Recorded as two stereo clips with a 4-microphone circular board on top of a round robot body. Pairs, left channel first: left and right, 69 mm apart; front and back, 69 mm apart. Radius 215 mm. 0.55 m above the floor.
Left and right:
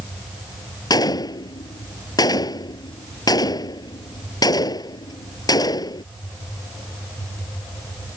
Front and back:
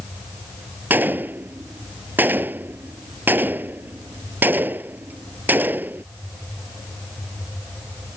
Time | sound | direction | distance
0.9 | a gunshot | 115° left | ?